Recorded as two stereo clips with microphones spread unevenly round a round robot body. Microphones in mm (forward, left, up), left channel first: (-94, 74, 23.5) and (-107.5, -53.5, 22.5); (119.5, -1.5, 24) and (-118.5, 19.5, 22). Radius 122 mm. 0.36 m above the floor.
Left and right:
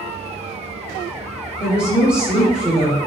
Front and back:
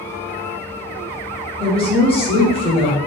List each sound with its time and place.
1.6 s a woman speaking: 25° right, 0.8 m